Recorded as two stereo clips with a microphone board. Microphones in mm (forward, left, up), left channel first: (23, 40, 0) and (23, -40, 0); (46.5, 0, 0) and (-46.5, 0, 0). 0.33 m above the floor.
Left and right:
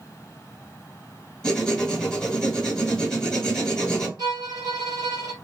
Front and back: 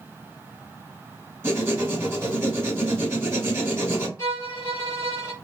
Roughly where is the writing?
Behind.